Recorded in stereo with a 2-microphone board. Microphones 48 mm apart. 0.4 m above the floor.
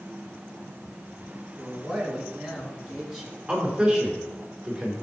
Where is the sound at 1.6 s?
5° right (ahead or behind), 3.5 m; by 3.4 s 15° right (ahead or behind), 4.5 m.